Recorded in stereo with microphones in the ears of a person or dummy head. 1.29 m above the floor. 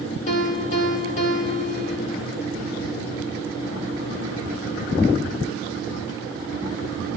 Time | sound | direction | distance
0.3 | a piano | 45° left (ahead or behind) | 2 m